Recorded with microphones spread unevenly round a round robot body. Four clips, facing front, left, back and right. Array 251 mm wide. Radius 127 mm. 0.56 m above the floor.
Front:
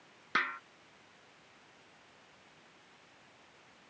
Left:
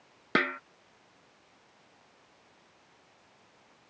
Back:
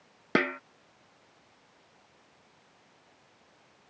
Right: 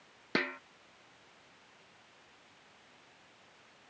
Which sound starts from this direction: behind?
A snare drum, at 0.3 s.